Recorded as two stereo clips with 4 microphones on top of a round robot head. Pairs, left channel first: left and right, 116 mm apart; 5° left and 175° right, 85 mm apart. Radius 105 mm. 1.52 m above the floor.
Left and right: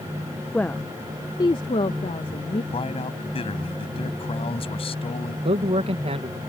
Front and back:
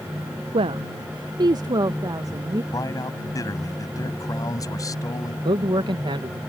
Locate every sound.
0.5 s a woman speaking: 175° left; by 2.6 s 135° left
2.7 s a man speaking: 50° left
5.5 s a man speaking: 135° right